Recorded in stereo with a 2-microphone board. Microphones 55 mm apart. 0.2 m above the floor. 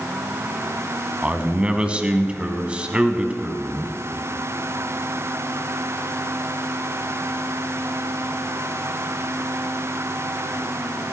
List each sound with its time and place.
1.2 s a man speaking: 20° right (ahead or behind), 1.2 m